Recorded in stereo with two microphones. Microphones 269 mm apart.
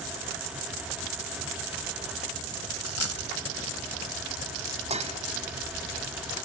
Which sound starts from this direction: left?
A dropped coin, at 2.8 s.